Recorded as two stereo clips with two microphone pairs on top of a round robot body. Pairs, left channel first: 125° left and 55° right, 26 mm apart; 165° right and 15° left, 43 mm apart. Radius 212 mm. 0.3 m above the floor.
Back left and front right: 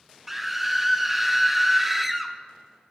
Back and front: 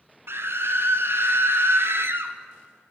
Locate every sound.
0.3 s a scream: 25° left, 2.5 m